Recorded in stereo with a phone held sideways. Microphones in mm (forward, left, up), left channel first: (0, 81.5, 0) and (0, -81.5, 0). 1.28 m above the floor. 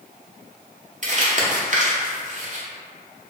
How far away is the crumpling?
About 0.6 m.